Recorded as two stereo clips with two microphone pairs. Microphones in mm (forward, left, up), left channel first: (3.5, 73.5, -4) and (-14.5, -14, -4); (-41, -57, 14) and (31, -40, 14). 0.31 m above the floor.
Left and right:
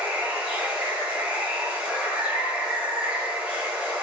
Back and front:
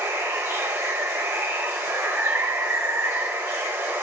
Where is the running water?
30° right, 0.9 m.